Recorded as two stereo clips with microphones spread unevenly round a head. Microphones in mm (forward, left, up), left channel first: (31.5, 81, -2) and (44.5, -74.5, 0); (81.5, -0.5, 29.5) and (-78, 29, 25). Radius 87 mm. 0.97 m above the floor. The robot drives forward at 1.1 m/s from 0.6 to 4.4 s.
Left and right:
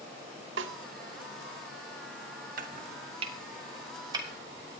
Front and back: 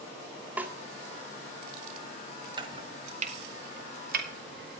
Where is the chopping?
130° right, 1.7 m; by 4.7 s 160° right, 3.5 m.